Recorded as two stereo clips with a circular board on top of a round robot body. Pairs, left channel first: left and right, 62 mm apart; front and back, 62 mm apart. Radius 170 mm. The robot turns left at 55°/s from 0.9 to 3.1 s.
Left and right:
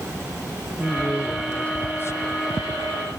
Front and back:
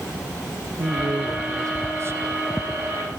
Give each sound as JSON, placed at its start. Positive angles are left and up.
{"t": 0.8, "sound": "a man speaking", "azimuth_deg": -160, "distance_m": 1.3}